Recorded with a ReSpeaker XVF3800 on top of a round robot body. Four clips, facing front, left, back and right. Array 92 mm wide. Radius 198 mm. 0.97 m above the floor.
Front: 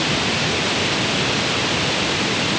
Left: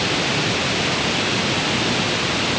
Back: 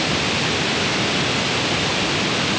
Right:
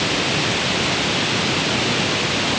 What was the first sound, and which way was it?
Only background noise.